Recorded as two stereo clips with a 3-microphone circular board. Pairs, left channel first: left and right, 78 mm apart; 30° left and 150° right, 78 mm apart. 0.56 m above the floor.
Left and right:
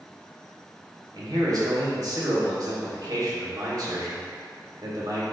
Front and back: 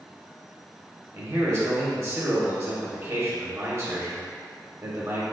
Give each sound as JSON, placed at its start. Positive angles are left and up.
{"t": 1.1, "sound": "a man speaking", "azimuth_deg": -110, "distance_m": 1.4}